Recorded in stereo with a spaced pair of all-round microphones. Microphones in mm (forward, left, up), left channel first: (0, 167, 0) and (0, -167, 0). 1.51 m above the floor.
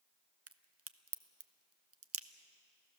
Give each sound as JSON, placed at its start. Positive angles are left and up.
{"t": 0.5, "sound": "a crack", "side_deg": -40, "distance_m": 0.6}